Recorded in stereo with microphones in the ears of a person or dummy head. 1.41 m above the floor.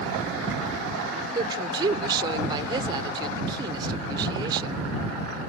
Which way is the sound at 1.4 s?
25° right (ahead or behind).